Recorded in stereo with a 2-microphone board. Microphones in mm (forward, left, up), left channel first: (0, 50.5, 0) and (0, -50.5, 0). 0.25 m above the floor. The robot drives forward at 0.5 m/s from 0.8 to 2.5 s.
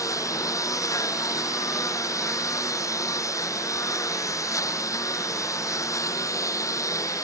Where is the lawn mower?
35° left (ahead or behind).